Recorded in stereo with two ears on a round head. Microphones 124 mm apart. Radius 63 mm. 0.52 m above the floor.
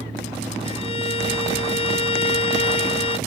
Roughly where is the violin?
Left.